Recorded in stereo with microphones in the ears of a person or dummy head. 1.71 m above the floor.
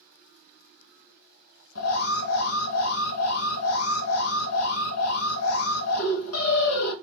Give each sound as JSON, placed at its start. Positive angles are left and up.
{"t": 1.8, "sound": "an alarm", "side_deg": 80, "distance_m": 1.5}